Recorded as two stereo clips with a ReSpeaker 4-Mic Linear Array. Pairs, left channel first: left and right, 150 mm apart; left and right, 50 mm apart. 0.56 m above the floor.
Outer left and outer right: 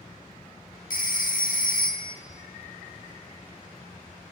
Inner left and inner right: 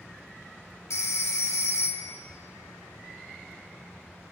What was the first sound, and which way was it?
A phone ringing, 70° left (ahead or behind).